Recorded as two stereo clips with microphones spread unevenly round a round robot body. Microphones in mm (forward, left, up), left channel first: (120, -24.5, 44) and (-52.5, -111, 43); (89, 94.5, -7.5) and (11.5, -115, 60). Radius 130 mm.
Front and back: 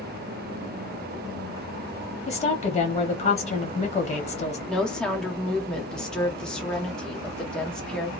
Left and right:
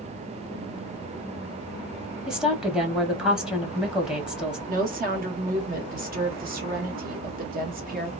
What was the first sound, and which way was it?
A woman speaking, 5° right.